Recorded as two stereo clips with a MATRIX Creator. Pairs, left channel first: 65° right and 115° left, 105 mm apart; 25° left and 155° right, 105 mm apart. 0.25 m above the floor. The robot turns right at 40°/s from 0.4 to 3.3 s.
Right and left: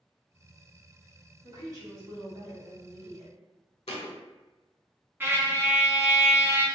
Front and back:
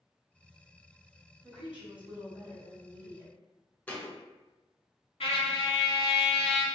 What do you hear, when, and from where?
1.4 s a woman speaking: 115° left, 1.3 m; by 3.3 s 170° right, 1.3 m
3.9 s a thud: 50° right, 0.5 m
5.2 s a trumpet: 45° left, 0.5 m